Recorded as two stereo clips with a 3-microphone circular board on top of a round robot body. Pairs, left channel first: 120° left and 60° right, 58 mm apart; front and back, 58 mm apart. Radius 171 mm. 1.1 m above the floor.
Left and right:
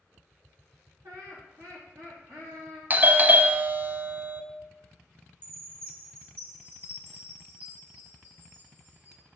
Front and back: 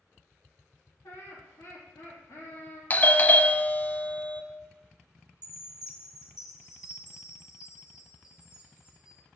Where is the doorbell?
35° right, 0.7 m.